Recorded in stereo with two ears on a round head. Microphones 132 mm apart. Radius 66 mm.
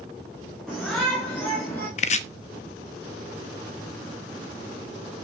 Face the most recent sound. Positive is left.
turn(degrees=50)  # may be behind; listen again after turning